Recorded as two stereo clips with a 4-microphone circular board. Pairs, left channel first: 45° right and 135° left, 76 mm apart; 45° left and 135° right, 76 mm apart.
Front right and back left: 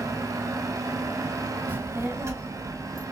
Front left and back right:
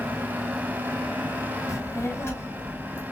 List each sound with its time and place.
1.7 s a child speaking: 75° left, 0.9 m; by 3.0 s 105° left, 1.4 m